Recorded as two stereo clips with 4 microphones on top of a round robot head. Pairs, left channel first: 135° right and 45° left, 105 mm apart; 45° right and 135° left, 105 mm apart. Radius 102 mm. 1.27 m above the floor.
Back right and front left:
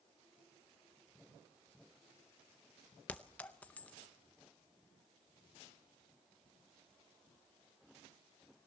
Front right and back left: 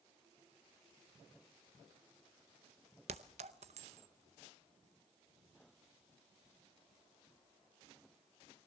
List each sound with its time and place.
3.1 s a clink: 150° left, 0.5 m